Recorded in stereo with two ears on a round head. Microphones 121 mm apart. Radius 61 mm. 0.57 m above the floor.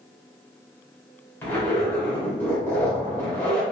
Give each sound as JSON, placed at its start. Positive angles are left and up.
{"t": 1.4, "sound": "a zipper", "side_deg": 15, "distance_m": 1.8}